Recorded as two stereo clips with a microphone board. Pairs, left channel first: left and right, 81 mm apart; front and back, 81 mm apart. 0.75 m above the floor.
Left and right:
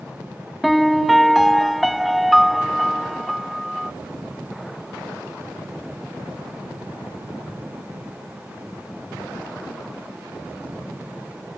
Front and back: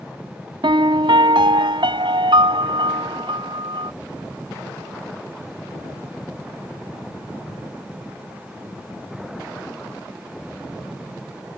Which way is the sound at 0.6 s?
Straight behind.